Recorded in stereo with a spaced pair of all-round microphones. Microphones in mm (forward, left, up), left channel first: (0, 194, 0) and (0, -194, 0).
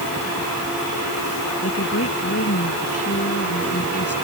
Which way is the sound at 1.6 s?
35° left (ahead or behind).